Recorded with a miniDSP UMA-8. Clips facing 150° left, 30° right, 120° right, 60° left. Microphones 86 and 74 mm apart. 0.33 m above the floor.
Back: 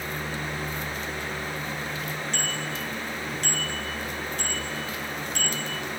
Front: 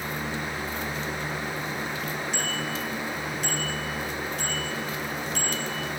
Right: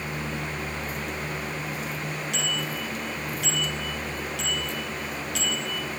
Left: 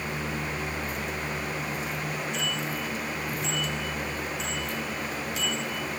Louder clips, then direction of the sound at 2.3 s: Front 1 dB, even; 115° right.